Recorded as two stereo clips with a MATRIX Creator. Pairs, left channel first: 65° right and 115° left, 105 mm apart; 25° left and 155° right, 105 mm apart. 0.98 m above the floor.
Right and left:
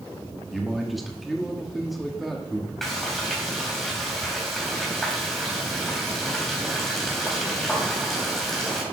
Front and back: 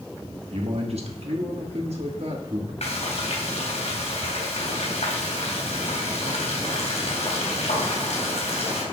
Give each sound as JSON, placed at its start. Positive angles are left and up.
{"t": 0.5, "sound": "a man speaking", "azimuth_deg": -160, "distance_m": 2.5}
{"t": 2.8, "sound": "frying", "azimuth_deg": 20, "distance_m": 3.5}